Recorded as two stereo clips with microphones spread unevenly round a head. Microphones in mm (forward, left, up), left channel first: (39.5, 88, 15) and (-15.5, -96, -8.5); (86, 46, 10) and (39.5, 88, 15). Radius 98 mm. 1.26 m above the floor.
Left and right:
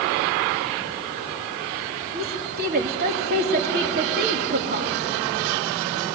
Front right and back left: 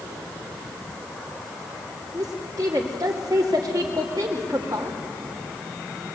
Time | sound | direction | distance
2.1 | a woman speaking | 155° right | 2 m